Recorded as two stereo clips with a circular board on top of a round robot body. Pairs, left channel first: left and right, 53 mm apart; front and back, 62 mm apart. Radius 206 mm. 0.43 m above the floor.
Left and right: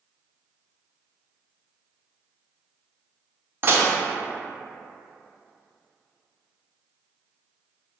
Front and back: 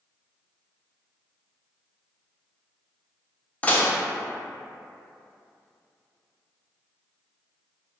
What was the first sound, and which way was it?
Dishes clattering, 60° right.